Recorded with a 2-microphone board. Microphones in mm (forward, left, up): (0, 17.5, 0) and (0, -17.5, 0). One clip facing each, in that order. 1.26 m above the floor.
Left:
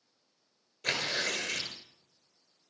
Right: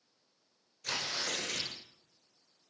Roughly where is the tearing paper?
Left.